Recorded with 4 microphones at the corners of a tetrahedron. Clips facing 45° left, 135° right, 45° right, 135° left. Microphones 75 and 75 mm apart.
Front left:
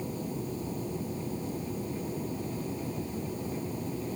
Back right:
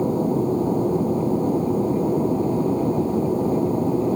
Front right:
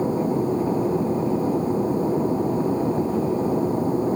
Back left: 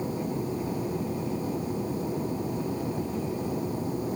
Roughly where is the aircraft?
Right.